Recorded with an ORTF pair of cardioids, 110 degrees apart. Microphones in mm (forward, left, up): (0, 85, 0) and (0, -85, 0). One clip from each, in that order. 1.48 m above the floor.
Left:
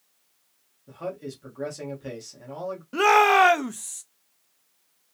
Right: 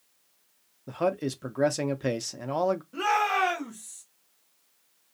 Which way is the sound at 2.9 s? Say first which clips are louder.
Left 11 dB; 60° left.